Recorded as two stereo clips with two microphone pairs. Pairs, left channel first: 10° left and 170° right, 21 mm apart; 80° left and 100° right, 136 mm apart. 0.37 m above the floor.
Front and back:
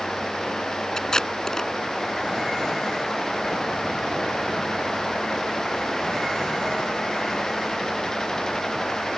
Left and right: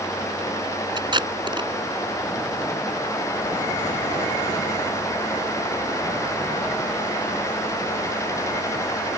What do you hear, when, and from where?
1.0 s tape being pulled: 45° right